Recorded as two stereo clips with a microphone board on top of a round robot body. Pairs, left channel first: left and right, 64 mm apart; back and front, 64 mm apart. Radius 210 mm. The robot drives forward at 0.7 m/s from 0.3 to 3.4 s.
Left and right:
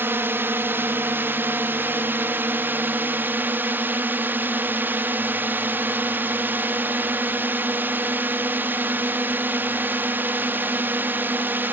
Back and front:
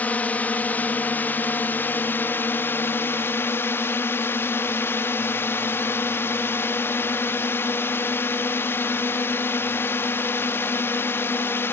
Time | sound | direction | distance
0.0 | a drone | 125° right | ?